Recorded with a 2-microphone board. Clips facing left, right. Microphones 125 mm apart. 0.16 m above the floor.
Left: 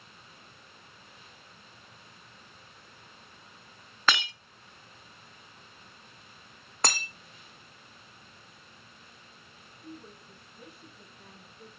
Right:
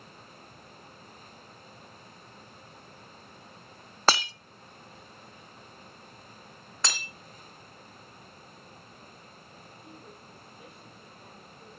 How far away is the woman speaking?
About 4.5 m.